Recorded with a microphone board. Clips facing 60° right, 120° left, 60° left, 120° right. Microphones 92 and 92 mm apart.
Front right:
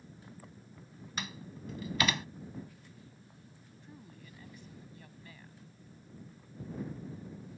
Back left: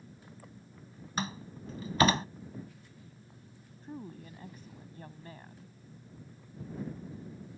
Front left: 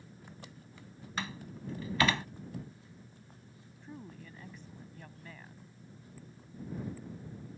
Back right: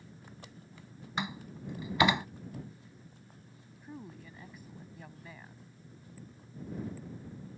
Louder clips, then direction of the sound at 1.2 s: Back left 6 dB, back right 2 dB; 170° left.